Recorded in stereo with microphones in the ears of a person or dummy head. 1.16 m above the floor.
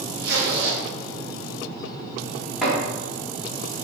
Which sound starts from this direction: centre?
Chopping, at 2.6 s.